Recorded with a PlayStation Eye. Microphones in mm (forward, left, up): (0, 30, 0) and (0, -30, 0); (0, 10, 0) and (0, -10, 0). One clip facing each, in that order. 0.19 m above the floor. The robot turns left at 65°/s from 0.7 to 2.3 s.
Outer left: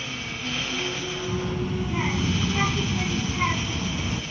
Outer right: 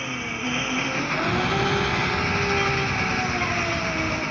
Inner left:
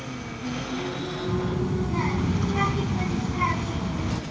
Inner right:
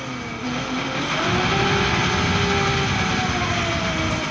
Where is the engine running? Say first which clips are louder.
Outer right 4 dB, inner right 5 dB; 25° right; by 4.3 s 130° right.